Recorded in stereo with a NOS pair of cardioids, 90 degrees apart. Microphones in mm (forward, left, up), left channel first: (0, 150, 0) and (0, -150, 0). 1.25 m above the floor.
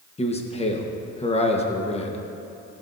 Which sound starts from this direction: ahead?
A man speaking, at 0.2 s.